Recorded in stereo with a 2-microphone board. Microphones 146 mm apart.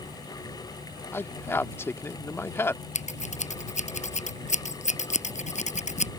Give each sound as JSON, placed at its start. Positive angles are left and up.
{"t": 1.1, "sound": "a man speaking", "side_deg": 15}
{"t": 3.0, "sound": "scissors", "side_deg": 50}